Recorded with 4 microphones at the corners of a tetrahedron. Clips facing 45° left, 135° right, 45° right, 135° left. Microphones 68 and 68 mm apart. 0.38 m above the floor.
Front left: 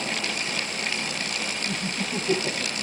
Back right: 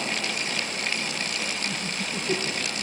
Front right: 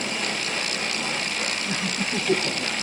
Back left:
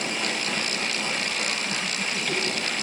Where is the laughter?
5° left, 2.5 m.